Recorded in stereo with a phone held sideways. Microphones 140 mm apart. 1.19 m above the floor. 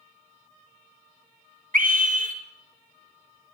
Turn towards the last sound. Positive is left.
turn(degrees=-70)  # may be behind; listen again after turning